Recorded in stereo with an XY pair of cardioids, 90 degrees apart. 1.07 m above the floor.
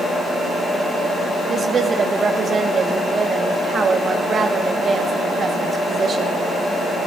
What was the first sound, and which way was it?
A woman speaking, 50° right.